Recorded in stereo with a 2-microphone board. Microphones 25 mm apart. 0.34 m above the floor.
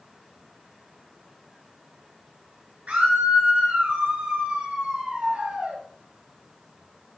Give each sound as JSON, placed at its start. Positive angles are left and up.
{"t": 2.9, "sound": "a scream", "side_deg": -80, "distance_m": 6.0}